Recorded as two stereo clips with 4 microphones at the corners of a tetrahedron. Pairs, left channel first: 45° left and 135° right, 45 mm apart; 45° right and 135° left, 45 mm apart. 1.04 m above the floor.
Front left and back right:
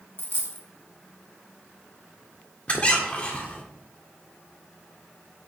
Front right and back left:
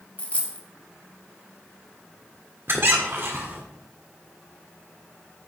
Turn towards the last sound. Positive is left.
turn(degrees=100)